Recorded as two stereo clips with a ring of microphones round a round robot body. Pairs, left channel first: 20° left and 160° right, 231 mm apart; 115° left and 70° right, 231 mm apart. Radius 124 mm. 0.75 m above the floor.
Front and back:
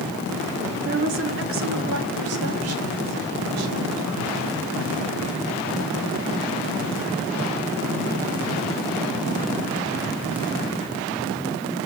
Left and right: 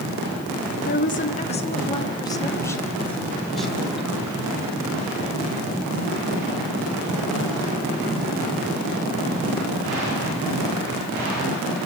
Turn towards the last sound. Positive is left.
turn(degrees=-150)